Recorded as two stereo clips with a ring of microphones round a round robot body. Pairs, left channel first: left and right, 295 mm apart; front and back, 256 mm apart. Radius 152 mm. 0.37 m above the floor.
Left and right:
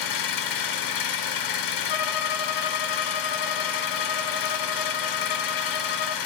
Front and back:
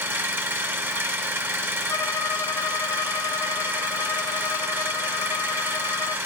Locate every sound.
0.0 s an engine running: 100° left, 2.0 m
1.9 s a violin: 80° left, 1.0 m